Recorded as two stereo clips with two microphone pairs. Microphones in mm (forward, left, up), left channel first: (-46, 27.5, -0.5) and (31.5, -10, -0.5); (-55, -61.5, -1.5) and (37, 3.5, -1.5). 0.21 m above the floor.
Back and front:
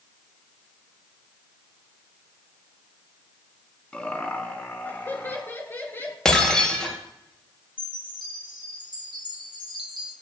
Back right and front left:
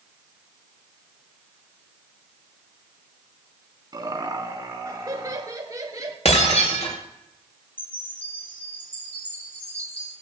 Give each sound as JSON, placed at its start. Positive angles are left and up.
{"t": 3.9, "sound": "laughter", "azimuth_deg": 80, "distance_m": 1.7}
{"t": 6.2, "sound": "breaking glass", "azimuth_deg": -125, "distance_m": 4.5}
{"t": 7.8, "sound": "a chime", "azimuth_deg": 145, "distance_m": 3.5}